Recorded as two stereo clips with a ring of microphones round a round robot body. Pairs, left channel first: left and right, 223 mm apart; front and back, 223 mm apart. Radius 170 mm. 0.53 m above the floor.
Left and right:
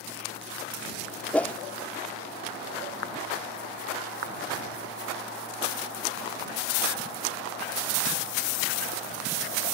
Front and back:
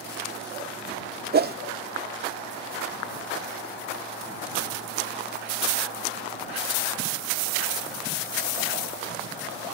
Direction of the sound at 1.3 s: 170° left.